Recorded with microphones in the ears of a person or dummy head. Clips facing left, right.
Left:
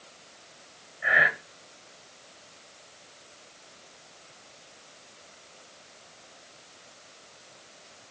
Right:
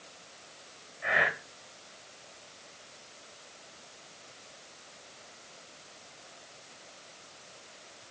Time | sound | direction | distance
1.0 | breathing | 5° left (ahead or behind) | 1.7 m